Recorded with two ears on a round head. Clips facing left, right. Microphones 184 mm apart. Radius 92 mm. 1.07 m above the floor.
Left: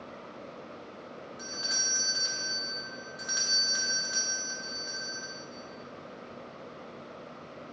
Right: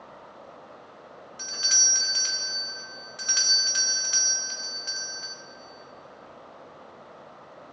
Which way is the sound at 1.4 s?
35° right (ahead or behind).